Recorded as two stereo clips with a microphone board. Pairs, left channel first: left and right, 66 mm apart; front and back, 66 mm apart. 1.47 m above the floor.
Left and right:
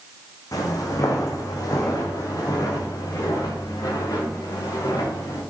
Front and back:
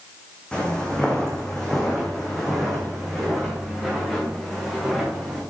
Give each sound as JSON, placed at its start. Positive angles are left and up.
{"t": 0.5, "sound": "footsteps", "azimuth_deg": 75, "distance_m": 3.5}